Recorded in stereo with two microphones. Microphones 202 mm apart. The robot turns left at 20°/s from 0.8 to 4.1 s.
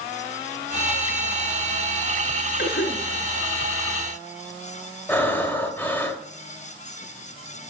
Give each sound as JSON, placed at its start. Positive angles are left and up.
{"t": 2.6, "sound": "a cough", "side_deg": 55, "distance_m": 2.5}
{"t": 5.1, "sound": "breathing", "side_deg": 10, "distance_m": 1.5}